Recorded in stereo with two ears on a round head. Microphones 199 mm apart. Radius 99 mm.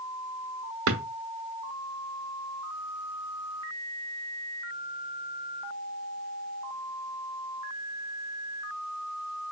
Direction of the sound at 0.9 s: 65° right (ahead or behind).